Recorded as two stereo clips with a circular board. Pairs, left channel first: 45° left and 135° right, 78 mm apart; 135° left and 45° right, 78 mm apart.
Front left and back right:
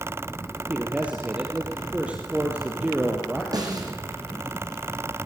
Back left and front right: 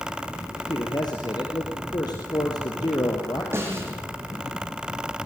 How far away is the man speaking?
About 3.5 m.